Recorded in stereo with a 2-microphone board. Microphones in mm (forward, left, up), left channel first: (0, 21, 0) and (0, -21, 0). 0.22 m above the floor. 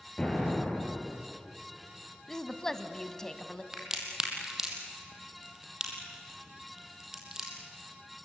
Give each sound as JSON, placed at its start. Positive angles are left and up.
{"t": 0.2, "sound": "an explosion", "side_deg": 15, "distance_m": 4.5}
{"t": 2.3, "sound": "a woman speaking", "side_deg": 15, "distance_m": 1.2}
{"t": 3.7, "sound": "a crack", "side_deg": -15, "distance_m": 3.5}